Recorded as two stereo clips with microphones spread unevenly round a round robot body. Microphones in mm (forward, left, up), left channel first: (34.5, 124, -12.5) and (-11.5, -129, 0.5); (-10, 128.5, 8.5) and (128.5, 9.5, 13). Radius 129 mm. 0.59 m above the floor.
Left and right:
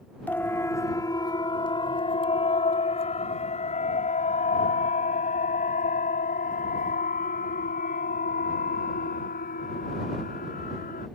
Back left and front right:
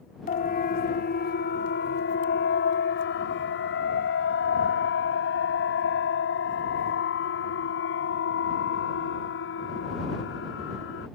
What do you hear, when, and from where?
0.3 s a siren: 160° left; by 11.1 s 140° left